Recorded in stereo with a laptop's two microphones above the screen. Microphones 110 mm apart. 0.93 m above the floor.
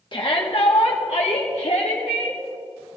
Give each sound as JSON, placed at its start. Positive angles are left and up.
{"t": 0.1, "sound": "a shout", "side_deg": 45, "distance_m": 1.5}